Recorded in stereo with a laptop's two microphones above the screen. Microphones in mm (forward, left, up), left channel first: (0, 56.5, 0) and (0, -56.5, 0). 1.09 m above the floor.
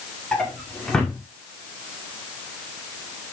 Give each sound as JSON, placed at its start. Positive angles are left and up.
{"t": 0.3, "sound": "a drawer", "side_deg": 5, "distance_m": 1.9}